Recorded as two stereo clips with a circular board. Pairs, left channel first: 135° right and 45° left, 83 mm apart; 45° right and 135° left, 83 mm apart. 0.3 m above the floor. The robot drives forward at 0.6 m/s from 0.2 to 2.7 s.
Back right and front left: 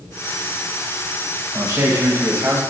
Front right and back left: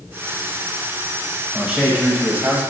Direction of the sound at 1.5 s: 60° left.